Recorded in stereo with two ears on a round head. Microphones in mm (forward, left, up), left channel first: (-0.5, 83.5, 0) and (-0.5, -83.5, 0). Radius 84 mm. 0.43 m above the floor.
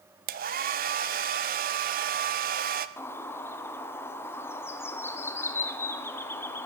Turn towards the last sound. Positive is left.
turn(degrees=15)  # may be behind; listen again after turning